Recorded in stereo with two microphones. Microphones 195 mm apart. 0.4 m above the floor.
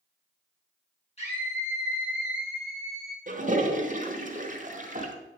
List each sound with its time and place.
1.2 s a scream: 35° left (ahead or behind), 5.5 m; by 3.2 s 60° left (ahead or behind), 3.5 m
3.3 s a toilet flushing: 40° right (ahead or behind), 1.2 m